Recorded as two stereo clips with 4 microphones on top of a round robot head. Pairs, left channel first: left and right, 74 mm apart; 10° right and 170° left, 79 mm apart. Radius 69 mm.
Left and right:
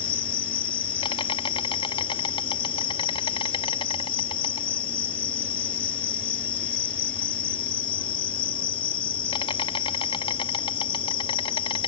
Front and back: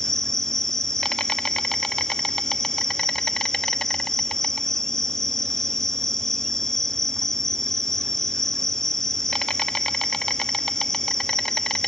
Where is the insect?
75° left.